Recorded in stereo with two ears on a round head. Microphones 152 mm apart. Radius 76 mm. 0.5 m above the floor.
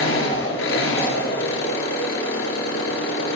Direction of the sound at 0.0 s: 85° left.